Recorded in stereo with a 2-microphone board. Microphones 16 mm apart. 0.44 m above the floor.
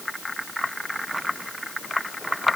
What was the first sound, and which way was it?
Only background noise.